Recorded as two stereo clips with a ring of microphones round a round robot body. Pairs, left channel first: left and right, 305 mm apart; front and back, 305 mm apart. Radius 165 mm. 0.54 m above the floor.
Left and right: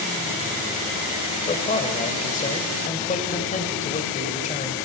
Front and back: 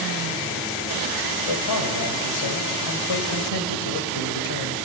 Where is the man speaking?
25° left, 3 m.